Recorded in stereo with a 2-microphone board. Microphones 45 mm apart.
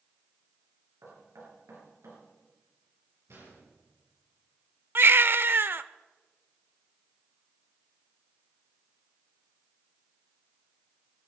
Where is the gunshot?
70° right (ahead or behind), 8 m.